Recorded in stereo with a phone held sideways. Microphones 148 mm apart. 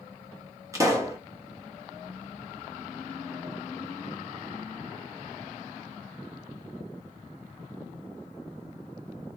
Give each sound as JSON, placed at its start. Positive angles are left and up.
{"t": 0.7, "sound": "a pop", "side_deg": -20, "distance_m": 0.9}